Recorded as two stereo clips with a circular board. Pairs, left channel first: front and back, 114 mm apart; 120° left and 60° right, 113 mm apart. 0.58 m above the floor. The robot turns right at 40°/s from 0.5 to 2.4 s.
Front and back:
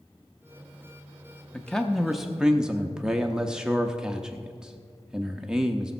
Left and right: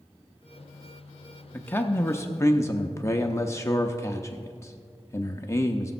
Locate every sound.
1.5 s a man speaking: 70° left, 0.7 m; by 5.9 s 105° left, 0.7 m